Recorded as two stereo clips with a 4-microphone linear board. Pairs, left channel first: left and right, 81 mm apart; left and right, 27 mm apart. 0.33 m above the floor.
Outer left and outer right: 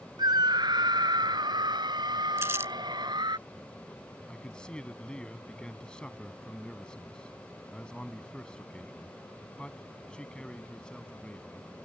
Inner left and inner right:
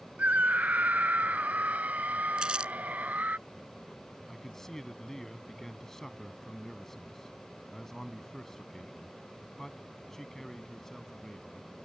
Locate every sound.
0.2 s a scream: 60° right (ahead or behind)
2.4 s crumpling: 30° right (ahead or behind)
4.3 s a man speaking: 10° left (ahead or behind)